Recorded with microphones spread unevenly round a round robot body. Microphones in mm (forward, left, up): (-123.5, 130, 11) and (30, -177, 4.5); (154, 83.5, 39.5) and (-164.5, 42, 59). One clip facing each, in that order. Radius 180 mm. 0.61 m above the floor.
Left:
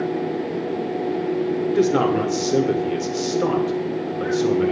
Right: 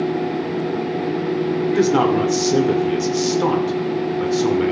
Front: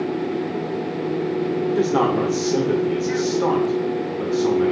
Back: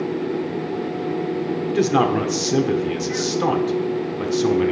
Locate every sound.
1.7 s a man speaking: 135° right, 2.5 m